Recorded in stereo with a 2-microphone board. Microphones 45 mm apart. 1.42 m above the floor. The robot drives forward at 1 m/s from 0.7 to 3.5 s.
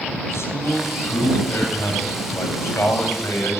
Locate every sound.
0.3 s a man speaking: 80° left, 10 m; by 3.6 s 85° left, 9.5 m